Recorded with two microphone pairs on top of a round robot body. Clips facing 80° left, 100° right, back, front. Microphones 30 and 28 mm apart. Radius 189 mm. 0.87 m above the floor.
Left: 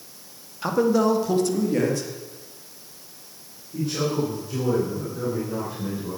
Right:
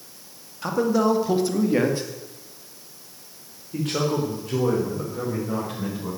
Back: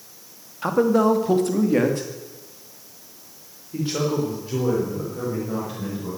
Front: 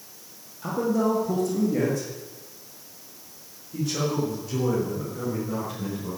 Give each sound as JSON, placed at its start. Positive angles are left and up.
{"t": 0.6, "sound": "a man speaking", "azimuth_deg": 160, "distance_m": 2.0}